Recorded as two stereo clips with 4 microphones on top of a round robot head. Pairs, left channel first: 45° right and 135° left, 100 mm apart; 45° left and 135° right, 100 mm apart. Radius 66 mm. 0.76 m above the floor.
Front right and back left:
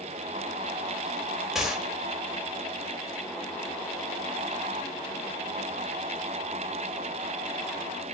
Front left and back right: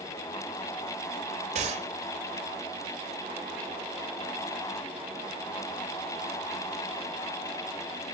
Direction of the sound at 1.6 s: 140° right.